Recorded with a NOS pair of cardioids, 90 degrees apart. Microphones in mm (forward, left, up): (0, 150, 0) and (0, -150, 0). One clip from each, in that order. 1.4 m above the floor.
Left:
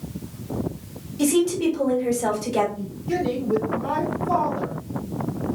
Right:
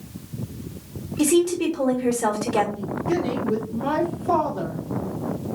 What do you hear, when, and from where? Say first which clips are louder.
1.2 s a woman speaking: right 1 dB; 55° right, 1.7 m
2.8 s a woman speaking: right 2 dB; 45° right, 1.6 m